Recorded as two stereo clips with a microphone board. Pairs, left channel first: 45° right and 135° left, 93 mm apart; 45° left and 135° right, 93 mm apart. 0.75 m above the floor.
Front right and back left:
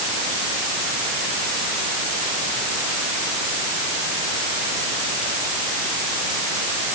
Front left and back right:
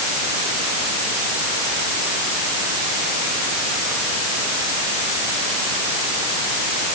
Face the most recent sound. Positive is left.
No sound to turn to.